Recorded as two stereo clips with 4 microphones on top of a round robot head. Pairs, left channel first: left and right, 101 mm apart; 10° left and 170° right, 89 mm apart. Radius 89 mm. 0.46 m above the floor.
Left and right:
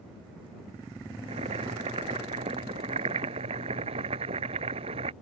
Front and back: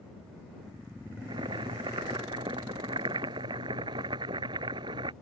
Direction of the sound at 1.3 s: 125° right.